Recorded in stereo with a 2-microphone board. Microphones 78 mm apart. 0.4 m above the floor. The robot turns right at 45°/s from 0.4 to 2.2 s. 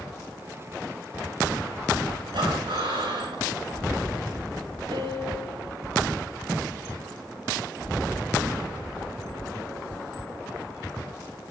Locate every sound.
2.3 s breathing: 75° right (ahead or behind), 8 m
4.9 s a piano: 80° right, 6 m